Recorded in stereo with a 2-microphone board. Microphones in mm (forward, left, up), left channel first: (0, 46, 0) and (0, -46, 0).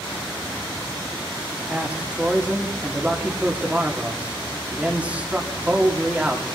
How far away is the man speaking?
About 5 m.